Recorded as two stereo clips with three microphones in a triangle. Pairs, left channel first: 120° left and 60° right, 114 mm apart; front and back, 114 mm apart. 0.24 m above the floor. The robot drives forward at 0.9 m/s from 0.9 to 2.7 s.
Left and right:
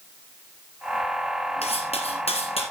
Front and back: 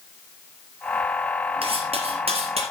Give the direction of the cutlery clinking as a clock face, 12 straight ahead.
7 o'clock.